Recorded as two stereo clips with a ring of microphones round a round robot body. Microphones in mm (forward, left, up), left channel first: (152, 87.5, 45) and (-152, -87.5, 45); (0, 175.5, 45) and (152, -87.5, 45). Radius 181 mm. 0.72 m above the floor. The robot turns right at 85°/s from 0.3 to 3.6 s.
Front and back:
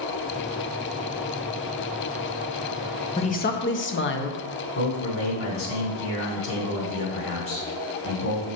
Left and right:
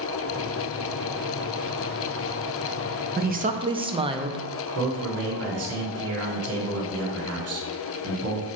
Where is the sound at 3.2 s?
35° right, 0.9 m; by 4.5 s straight ahead, 0.9 m.